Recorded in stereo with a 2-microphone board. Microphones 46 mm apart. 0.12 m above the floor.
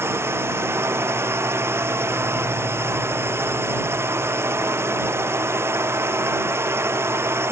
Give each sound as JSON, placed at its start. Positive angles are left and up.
{"t": 0.0, "sound": "a drone", "side_deg": -65}